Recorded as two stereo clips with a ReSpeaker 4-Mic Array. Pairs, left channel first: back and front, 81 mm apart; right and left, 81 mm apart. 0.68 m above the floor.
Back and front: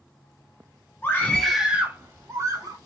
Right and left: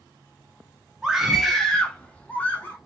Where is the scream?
165° left, 0.7 m; by 2.8 s 25° right, 1.0 m.